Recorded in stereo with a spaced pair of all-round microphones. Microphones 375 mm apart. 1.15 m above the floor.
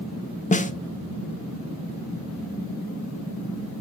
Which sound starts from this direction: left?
A snare drum, at 0.5 s.